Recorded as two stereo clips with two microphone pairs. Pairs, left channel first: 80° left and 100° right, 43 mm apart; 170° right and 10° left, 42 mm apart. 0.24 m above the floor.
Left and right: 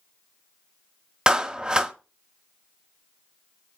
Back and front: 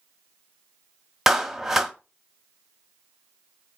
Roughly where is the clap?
Right.